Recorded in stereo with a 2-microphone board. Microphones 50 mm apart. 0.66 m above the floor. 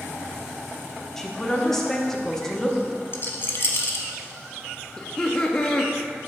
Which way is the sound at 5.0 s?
15° left (ahead or behind).